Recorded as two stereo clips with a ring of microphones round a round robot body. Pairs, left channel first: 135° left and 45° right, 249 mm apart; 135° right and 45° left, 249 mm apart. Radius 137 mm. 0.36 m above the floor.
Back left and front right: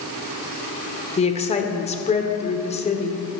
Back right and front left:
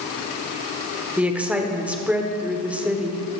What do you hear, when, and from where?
1.2 s a woman speaking: 125° left, 1.3 m